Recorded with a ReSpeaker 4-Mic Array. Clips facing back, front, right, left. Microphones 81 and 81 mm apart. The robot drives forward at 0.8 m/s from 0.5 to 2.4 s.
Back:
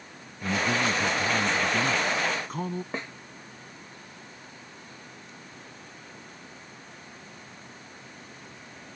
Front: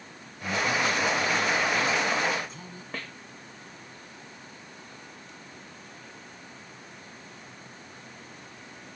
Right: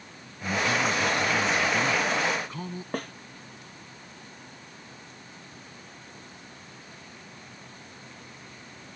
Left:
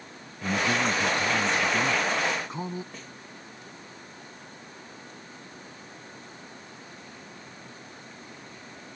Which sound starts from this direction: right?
A snare drum, at 2.9 s.